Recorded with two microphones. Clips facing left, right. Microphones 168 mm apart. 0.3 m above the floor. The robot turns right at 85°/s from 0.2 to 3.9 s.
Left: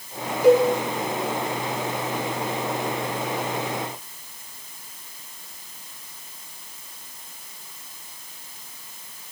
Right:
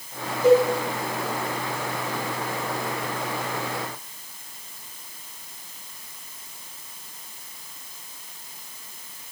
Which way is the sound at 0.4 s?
10° left (ahead or behind).